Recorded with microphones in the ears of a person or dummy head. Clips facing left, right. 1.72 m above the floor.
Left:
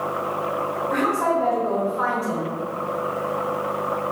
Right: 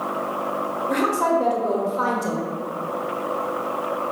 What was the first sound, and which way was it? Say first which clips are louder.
A woman speaking: right 2 dB; 55° right (ahead or behind).